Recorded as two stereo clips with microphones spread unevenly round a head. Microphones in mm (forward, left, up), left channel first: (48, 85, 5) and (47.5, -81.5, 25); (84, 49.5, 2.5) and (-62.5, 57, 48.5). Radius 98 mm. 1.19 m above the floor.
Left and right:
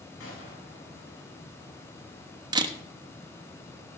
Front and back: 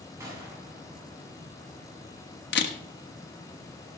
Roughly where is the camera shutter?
Ahead right.